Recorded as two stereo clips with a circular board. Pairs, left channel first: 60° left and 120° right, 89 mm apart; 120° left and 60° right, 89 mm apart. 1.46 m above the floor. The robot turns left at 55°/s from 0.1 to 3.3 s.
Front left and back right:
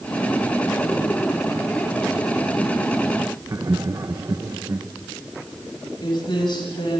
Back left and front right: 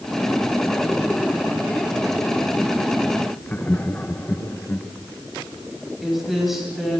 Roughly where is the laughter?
Behind.